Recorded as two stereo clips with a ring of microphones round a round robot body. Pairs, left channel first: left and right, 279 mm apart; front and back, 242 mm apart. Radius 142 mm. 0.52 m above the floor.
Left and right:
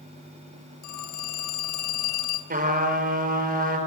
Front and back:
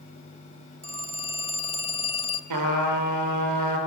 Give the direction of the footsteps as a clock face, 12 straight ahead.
No footsteps in this recording.